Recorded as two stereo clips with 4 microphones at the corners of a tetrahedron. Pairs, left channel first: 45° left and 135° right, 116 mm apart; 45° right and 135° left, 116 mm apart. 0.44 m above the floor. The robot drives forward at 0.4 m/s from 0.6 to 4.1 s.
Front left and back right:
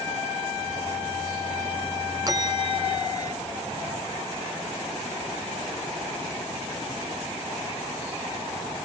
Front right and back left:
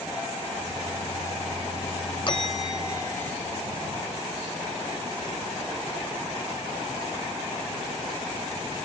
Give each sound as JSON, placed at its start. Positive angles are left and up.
{"t": 2.3, "sound": "a bell", "azimuth_deg": -80}